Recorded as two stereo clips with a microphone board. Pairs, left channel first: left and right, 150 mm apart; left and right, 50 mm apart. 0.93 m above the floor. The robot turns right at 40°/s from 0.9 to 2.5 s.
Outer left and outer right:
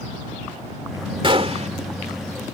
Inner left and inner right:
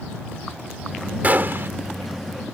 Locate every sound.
1.2 s a gunshot: 35° right (ahead or behind); by 1.7 s 55° right (ahead or behind)